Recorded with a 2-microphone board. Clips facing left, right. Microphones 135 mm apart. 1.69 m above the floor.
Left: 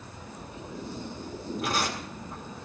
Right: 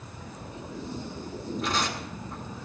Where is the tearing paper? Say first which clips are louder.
Even; 10° left (ahead or behind), 3 m.